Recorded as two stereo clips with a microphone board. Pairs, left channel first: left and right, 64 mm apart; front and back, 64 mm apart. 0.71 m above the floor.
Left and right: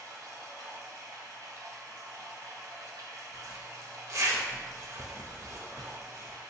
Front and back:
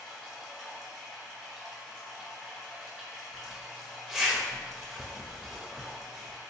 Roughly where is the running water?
Right.